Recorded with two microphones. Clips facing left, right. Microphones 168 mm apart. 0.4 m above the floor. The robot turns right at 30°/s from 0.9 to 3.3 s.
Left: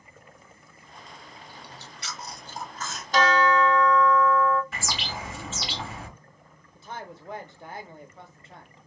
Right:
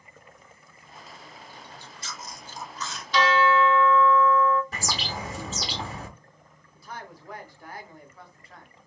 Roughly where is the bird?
Right.